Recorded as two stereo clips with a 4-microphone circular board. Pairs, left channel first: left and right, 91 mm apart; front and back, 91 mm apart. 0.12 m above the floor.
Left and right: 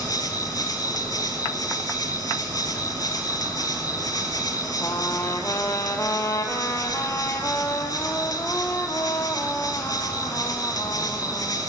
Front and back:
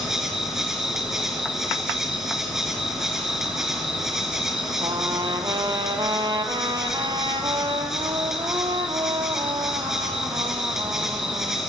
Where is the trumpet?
150° left, 0.6 m.